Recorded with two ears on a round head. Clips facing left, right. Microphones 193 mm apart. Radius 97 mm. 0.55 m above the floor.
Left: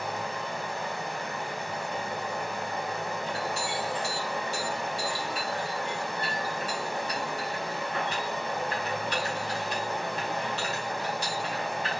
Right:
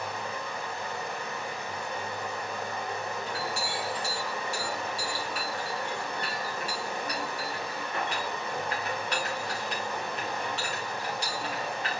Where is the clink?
55° right (ahead or behind), 1.4 m.